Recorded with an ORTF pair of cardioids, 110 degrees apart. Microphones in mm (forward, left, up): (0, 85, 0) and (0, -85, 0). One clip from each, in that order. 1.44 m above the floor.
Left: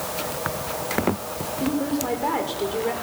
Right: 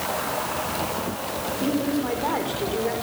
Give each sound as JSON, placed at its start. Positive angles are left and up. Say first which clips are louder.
{"t": 1.6, "sound": "a woman speaking", "louder": "left 1 dB", "azimuth_deg": 5, "distance_m": 5.5}